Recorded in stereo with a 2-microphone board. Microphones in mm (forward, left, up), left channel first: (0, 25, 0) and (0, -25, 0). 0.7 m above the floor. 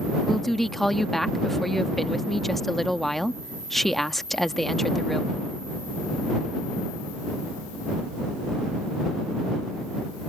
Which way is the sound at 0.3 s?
5° left (ahead or behind).